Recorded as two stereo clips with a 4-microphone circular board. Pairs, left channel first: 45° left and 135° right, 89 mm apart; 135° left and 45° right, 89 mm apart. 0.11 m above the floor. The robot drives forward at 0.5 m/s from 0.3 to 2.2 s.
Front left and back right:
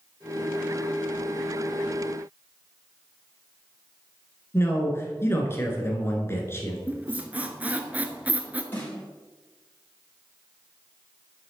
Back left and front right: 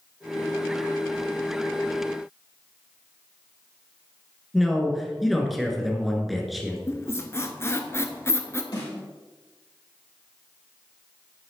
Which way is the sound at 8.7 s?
110° left.